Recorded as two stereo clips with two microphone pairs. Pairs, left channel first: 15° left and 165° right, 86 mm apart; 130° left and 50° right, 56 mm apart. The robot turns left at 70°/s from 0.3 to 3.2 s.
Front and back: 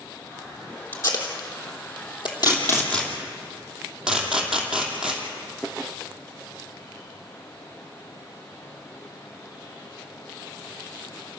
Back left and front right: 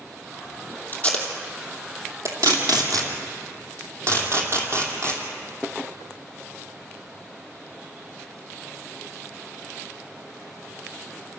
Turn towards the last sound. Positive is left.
turn(degrees=-85)